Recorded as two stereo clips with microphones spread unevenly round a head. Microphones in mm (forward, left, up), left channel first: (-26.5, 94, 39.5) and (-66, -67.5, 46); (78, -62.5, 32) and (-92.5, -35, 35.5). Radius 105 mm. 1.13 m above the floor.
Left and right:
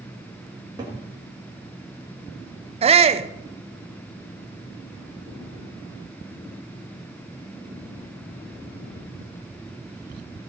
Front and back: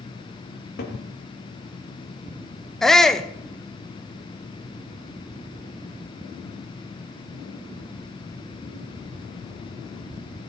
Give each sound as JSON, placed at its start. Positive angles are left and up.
{"t": 0.5, "sound": "a cupboard door", "azimuth_deg": -35, "distance_m": 2.0}
{"t": 2.8, "sound": "a shout", "azimuth_deg": -95, "distance_m": 0.7}